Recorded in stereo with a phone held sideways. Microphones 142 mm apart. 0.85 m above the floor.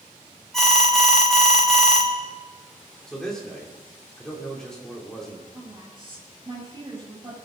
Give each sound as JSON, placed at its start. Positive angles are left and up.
{"t": 0.5, "sound": "an alarm", "side_deg": 5, "distance_m": 1.7}
{"t": 3.1, "sound": "a man speaking", "side_deg": 5, "distance_m": 3.0}
{"t": 5.5, "sound": "a woman speaking", "side_deg": -35, "distance_m": 6.0}